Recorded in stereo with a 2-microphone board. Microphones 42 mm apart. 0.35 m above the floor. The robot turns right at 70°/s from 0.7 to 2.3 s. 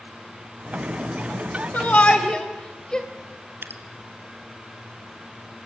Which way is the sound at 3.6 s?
55° right (ahead or behind).